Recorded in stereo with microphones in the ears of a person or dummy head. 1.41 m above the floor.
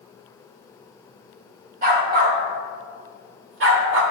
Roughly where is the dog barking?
Right.